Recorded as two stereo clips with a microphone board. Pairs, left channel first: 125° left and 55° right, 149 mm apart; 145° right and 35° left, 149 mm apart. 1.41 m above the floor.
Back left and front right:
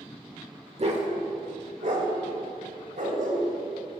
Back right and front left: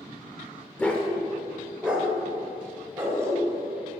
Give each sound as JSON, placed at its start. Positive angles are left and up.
{"t": 0.8, "sound": "a dog barking", "azimuth_deg": -70, "distance_m": 1.4}